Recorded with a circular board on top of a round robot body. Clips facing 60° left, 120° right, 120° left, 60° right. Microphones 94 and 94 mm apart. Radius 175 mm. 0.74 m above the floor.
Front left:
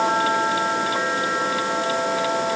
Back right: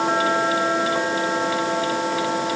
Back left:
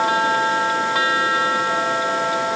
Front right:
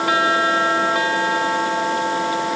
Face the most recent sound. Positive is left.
No sound to turn to.